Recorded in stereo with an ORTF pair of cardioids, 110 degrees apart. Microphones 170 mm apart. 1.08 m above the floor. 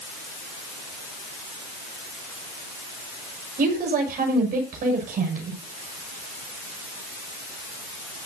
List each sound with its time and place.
3.6 s a woman speaking: 60° right, 6.5 m